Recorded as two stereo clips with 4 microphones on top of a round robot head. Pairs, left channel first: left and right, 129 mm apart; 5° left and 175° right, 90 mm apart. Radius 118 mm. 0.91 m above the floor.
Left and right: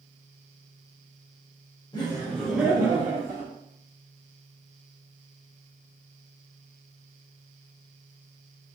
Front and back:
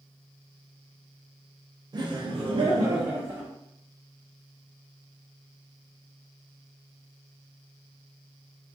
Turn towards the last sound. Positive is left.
turn(degrees=-115)